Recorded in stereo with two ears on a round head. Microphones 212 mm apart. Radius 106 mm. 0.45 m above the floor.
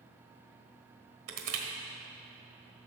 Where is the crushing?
65° right (ahead or behind), 1.4 m.